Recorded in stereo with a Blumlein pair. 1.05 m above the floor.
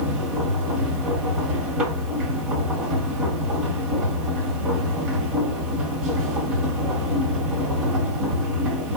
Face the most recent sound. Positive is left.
turn(degrees=-35)